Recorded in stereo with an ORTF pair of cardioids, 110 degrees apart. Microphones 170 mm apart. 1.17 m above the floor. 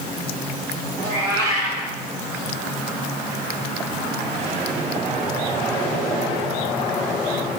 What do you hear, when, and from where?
1.0 s a cat meowing: 65° right, 1.6 m